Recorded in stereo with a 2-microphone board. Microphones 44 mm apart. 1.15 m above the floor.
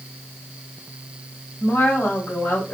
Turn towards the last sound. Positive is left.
turn(degrees=85)